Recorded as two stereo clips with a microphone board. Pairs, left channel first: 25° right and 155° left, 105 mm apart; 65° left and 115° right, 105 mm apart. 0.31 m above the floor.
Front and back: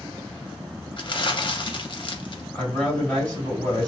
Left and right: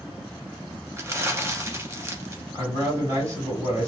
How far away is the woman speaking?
About 1.7 m.